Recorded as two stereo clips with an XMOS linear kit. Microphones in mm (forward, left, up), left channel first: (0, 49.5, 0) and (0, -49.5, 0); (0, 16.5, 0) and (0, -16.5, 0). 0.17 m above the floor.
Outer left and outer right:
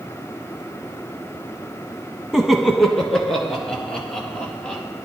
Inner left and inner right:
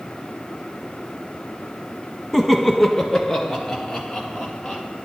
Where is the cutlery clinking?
No cutlery clinking in this recording.